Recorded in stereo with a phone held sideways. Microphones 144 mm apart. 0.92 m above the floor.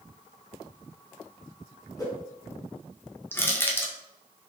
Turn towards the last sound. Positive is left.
turn(degrees=15)  # may be behind; listen again after turning